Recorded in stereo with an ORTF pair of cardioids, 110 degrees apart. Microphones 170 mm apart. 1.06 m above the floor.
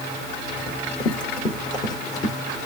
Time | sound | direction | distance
0.7 | running footsteps | 25° left | 4 m